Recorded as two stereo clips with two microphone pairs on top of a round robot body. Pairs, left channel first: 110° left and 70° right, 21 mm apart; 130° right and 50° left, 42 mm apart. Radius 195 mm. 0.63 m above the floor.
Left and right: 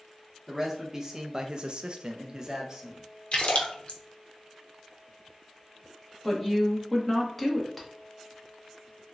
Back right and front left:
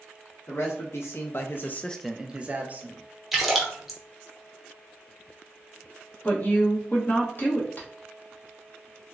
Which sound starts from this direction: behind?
A woman speaking, at 6.2 s.